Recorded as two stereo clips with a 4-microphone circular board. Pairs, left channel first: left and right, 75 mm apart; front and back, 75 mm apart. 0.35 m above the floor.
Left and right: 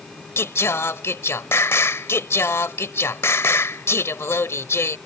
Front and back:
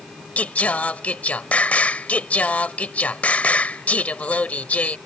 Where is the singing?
60° left.